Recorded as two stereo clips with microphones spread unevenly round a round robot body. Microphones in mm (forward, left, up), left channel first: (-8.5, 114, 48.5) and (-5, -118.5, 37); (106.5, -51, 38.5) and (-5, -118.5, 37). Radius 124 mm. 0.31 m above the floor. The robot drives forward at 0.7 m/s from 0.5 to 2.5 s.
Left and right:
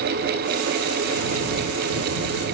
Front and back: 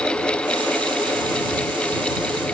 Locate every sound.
Only background noise.